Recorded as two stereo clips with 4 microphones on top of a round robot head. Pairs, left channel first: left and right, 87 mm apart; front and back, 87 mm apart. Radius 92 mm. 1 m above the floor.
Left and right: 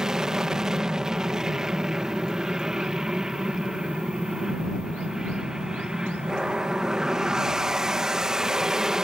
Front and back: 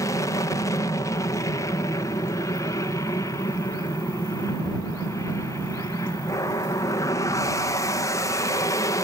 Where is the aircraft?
10° right.